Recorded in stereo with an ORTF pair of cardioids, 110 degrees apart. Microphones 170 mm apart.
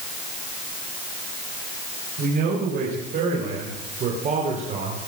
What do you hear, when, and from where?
2.2 s a man speaking: 60° right, 5.5 m; by 5.0 s 40° right, 3.5 m